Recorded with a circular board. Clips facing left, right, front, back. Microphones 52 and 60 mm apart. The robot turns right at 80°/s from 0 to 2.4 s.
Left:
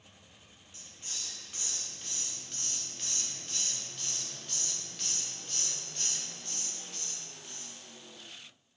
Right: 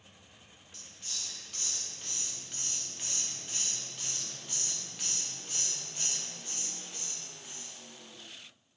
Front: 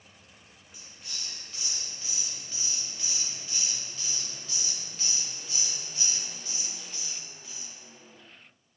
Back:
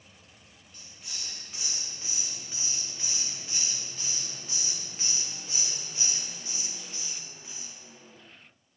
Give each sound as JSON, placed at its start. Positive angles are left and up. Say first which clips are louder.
{"t": 0.7, "sound": "a hiss", "louder": "even, even", "azimuth_deg": 70, "distance_m": 1.0}